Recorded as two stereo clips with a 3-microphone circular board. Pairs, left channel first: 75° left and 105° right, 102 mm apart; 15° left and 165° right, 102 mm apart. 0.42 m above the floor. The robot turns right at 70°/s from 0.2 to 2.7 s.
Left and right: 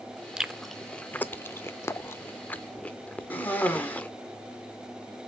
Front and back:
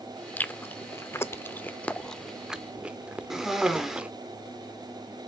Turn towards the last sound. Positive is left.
turn(degrees=120)